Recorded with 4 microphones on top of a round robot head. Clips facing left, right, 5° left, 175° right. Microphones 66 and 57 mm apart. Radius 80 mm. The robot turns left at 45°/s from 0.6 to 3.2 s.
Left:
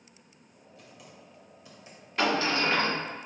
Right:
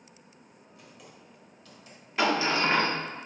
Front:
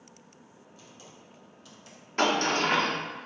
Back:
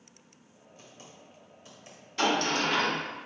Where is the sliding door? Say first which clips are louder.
Right 1 dB, front 2 dB; 5° right, 1.1 m; by 2.9 s 35° right, 1.1 m.